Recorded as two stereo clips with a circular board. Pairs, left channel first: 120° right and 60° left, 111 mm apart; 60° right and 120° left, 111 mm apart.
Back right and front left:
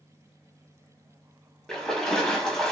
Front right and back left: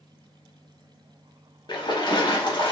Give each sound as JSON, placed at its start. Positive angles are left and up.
{"t": 1.7, "sound": "a splash", "azimuth_deg": -40, "distance_m": 0.8}